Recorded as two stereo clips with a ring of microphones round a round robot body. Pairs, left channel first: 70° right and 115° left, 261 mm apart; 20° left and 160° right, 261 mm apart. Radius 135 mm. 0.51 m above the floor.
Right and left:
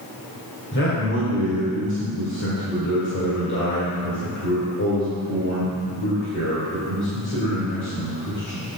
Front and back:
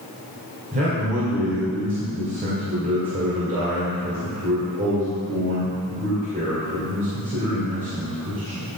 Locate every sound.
0.7 s a man speaking: 100° right, 2 m